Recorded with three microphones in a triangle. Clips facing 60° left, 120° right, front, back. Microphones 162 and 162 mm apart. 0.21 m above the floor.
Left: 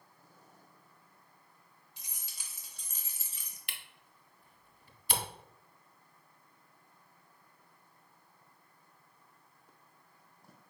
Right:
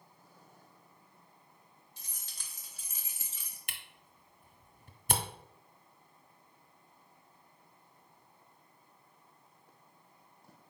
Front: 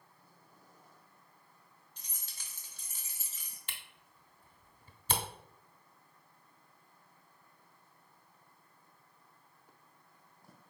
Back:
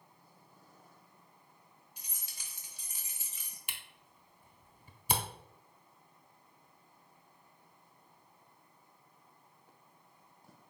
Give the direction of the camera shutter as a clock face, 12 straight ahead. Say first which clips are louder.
Even, even; 4 o'clock.